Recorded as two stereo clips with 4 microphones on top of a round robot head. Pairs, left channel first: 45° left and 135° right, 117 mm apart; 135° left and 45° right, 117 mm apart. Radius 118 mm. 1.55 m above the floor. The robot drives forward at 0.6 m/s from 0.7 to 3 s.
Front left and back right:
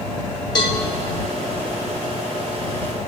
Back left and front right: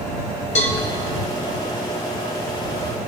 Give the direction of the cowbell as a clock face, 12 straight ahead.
9 o'clock.